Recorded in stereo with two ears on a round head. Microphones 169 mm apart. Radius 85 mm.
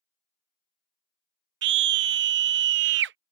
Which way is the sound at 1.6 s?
65° right (ahead or behind).